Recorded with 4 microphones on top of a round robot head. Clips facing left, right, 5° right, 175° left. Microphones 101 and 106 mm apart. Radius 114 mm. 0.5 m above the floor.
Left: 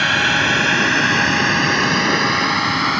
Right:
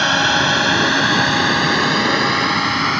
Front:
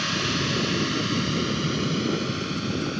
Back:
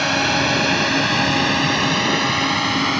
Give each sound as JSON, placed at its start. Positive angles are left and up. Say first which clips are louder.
{"t": 0.0, "sound": "a drone", "louder": "right 2 dB, back 8 dB", "azimuth_deg": -155}